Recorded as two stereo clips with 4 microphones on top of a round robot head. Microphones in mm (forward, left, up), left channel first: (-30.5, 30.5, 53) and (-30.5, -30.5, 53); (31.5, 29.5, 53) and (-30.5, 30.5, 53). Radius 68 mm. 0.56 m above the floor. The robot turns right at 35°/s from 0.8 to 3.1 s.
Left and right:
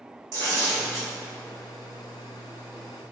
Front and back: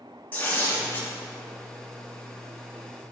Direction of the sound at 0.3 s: 70° right.